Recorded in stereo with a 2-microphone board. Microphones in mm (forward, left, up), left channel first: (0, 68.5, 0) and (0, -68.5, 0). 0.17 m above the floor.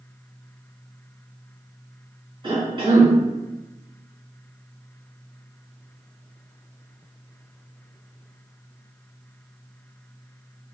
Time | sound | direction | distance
2.4 | a cough | 35° right (ahead or behind) | 1.8 m